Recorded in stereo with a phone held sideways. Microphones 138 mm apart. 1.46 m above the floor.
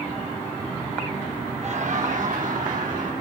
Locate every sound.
1.6 s laughter: 55° right (ahead or behind), 1.5 m; by 3.1 s 80° right, 3.5 m